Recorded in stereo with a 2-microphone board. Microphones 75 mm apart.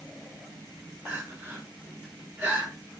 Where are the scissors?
No scissors in this recording.